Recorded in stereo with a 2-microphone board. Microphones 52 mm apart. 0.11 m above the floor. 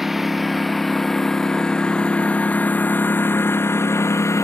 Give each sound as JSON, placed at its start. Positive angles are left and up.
{"t": 0.0, "sound": "a lawn mower", "side_deg": -5}